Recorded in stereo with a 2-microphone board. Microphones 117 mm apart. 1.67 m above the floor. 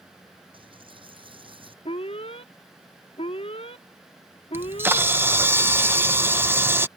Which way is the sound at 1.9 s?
55° left (ahead or behind).